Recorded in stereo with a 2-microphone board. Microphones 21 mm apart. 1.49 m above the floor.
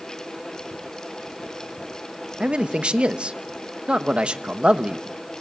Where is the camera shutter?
I don't hear a camera shutter.